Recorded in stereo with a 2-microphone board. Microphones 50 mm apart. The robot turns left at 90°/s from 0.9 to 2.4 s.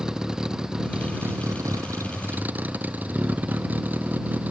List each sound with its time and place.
0.0 s a vehicle: 15° right; by 4.5 s 150° right